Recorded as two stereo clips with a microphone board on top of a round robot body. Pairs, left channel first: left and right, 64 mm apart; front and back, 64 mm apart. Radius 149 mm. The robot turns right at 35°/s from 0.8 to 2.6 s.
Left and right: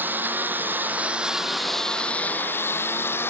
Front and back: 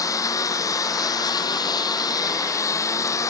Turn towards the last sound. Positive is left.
turn(degrees=35)